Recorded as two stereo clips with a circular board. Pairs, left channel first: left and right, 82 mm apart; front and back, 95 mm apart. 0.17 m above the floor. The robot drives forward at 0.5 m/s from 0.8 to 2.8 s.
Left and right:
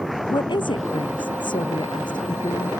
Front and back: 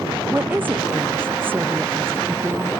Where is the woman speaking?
110° left; by 2.7 s 115° left.